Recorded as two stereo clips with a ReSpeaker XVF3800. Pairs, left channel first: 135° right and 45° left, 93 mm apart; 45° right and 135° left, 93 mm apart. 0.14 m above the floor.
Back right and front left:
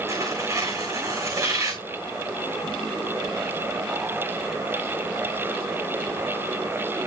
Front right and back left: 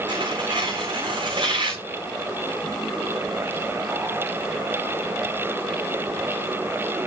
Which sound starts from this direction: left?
Tearing paper, at 0.1 s.